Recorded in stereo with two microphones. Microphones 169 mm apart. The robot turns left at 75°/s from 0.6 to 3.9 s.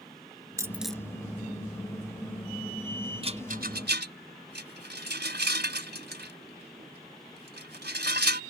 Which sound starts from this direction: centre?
A dropped coin, at 0.6 s.